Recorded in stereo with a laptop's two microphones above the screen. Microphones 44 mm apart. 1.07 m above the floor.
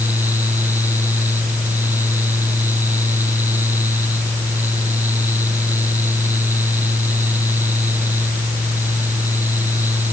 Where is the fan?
50° right (ahead or behind).